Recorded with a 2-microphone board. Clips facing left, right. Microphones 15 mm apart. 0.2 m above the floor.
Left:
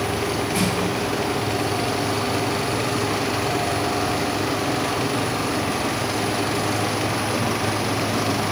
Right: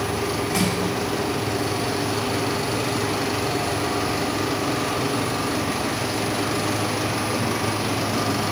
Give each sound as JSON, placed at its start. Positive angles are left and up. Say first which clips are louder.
{"t": 0.5, "sound": "crushing", "louder": "right 1 dB", "side_deg": -85, "distance_m": 5.0}